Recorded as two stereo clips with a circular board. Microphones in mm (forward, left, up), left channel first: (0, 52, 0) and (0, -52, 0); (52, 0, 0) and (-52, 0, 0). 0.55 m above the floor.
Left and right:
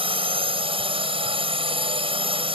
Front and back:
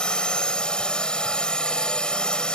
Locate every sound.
0.0 s a drone: 80° right